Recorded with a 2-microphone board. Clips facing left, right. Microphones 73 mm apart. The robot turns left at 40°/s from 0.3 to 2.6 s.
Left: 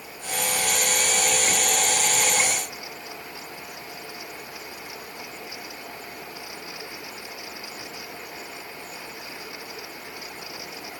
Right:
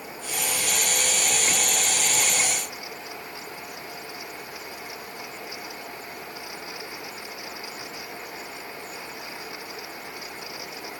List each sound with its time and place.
Only background noise.